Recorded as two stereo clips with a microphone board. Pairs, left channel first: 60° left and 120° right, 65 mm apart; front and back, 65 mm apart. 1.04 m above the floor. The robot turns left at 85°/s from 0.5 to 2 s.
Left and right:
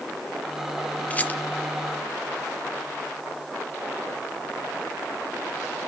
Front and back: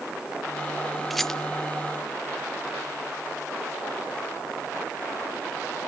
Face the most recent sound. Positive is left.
turn(degrees=15)